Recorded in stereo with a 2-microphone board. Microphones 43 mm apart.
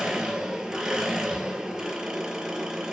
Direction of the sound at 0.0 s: 15° right (ahead or behind).